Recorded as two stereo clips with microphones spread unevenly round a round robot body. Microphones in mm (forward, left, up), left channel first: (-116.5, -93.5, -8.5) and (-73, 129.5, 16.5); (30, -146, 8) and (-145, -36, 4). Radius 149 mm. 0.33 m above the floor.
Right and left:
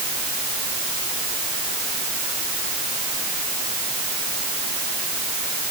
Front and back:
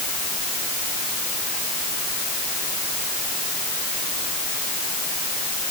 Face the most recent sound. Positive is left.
No sound to turn to.